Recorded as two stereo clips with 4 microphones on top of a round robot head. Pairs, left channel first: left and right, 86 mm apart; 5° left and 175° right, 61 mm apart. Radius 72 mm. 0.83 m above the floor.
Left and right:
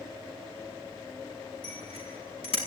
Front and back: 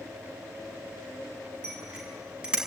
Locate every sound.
1.6 s a bicycle bell: 110° left, 6 m